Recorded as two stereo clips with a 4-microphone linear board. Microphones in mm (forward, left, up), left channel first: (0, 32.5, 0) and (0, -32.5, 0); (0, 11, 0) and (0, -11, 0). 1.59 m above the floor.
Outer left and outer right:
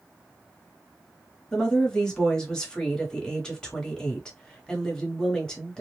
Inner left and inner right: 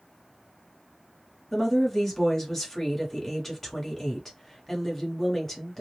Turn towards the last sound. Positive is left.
turn(degrees=10)  # may be behind; listen again after turning